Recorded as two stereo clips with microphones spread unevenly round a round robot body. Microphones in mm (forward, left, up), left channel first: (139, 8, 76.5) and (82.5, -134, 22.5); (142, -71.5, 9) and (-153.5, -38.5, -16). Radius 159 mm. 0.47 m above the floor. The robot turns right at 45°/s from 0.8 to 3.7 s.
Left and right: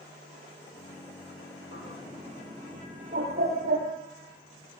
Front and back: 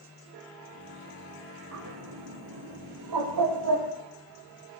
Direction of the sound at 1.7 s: 120° left.